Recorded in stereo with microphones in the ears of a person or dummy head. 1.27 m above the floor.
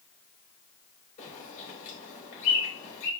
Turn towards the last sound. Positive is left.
turn(degrees=40)  # may be behind; listen again after turning